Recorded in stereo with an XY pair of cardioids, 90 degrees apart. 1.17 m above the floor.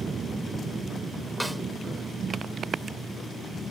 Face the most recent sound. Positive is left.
turn(degrees=-10)